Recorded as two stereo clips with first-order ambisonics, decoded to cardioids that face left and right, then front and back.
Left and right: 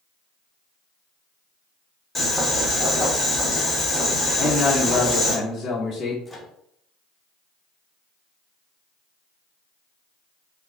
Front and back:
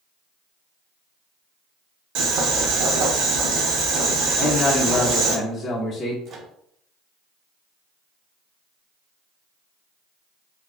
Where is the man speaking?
40° left, 0.8 m.